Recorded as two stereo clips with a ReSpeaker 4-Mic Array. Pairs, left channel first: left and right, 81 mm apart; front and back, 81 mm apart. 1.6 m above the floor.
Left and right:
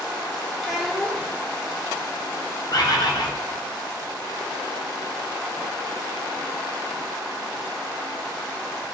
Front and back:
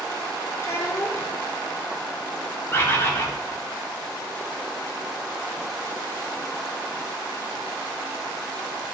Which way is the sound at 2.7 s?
60° left.